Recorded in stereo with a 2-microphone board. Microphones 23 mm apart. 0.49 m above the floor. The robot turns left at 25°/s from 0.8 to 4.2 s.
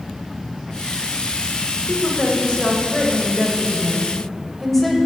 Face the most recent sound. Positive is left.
turn(degrees=10)